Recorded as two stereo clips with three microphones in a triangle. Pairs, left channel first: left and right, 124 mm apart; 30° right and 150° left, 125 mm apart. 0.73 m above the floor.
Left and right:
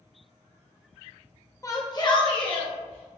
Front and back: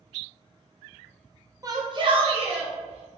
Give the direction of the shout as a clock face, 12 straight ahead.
8 o'clock.